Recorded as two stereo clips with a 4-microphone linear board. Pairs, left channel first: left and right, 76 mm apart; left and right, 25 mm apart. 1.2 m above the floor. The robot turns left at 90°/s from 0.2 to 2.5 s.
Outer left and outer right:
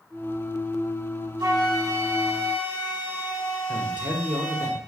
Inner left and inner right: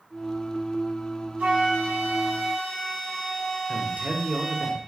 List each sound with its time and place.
1.4 s a flute: 90° right, 1.9 m; by 4.7 s 170° left, 1.9 m
3.7 s a man speaking: 70° right (ahead or behind), 0.8 m